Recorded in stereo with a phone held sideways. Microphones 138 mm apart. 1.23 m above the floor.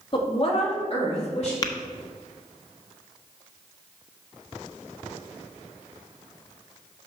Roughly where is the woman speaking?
Left.